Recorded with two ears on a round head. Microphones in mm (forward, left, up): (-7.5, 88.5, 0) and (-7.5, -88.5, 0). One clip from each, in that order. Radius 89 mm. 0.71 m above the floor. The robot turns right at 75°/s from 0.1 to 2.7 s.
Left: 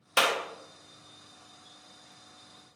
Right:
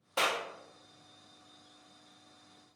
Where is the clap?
65° left (ahead or behind), 0.5 m; by 0.4 s 60° left (ahead or behind), 0.5 m.